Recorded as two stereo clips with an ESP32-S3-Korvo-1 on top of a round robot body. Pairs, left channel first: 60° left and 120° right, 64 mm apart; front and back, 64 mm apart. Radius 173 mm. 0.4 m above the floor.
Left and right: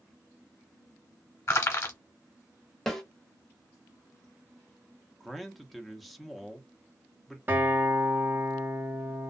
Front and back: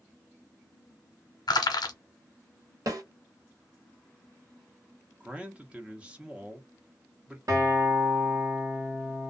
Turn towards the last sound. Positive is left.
turn(degrees=-175)